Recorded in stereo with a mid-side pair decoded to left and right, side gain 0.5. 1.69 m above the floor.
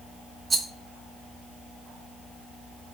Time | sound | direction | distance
0.5 | a rattle | 25° right | 0.8 m